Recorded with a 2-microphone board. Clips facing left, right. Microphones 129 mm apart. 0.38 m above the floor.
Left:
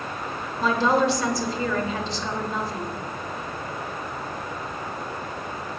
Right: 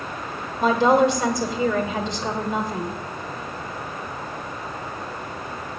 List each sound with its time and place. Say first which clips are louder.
0.6 s a woman speaking: right 4 dB; 20° right (ahead or behind), 1.1 m